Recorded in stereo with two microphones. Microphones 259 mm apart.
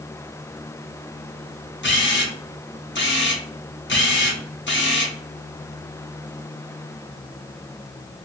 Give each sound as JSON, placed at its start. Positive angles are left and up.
{"t": 1.8, "sound": "a camera shutter", "side_deg": 45, "distance_m": 0.6}